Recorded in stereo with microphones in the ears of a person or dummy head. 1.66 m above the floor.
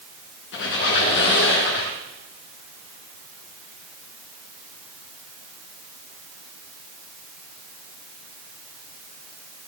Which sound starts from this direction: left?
A squeak, at 0.5 s.